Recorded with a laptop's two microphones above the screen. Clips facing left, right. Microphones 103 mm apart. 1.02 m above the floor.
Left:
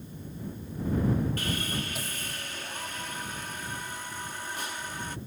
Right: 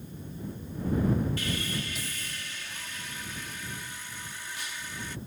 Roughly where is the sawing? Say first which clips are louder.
Left 1 dB; left.